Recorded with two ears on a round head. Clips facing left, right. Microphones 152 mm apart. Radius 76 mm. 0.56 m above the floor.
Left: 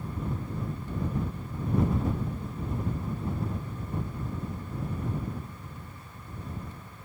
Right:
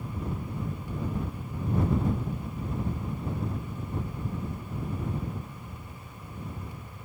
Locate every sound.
Only background noise.